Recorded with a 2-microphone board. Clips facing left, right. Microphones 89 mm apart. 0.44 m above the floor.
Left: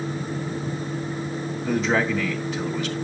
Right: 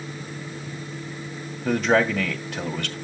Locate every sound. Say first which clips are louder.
1.6 s a man speaking: right 3 dB; 65° right (ahead or behind), 2 m